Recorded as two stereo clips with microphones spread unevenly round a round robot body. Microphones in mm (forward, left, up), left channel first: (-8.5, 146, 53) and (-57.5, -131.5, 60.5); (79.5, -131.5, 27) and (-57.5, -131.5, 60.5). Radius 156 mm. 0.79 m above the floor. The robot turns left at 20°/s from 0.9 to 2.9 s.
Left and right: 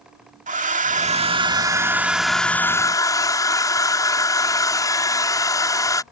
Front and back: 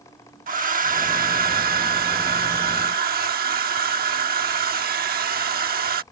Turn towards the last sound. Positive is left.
turn(degrees=155)